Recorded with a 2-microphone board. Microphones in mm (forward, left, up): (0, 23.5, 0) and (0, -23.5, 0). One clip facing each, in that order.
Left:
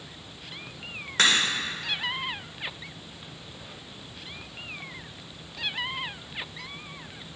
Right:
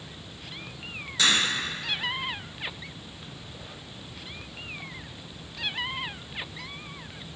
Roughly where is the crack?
Left.